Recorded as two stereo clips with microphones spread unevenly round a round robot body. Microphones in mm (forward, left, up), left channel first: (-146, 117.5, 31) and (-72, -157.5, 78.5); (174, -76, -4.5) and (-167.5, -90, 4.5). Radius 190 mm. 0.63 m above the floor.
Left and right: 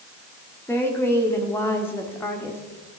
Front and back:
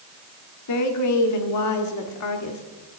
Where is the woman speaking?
30° left, 1.7 m.